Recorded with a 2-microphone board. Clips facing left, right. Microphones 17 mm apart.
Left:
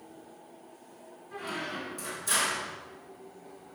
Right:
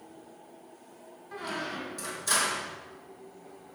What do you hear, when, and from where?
1.3 s a squeak: 35° right (ahead or behind), 1.8 m